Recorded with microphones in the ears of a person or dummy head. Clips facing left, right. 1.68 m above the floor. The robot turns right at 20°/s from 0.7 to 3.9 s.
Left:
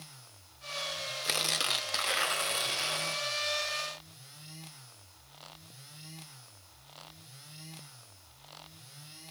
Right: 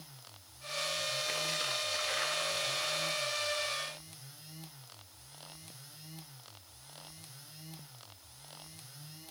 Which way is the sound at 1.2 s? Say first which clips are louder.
Left 1 dB; 90° left.